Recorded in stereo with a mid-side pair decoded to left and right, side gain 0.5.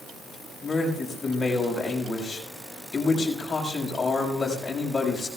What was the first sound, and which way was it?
A man speaking, 25° left.